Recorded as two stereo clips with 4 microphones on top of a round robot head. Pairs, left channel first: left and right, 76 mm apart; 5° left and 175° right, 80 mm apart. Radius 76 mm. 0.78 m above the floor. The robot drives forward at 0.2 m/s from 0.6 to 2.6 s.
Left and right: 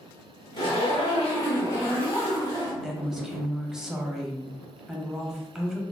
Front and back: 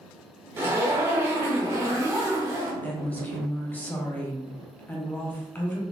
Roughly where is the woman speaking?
Ahead.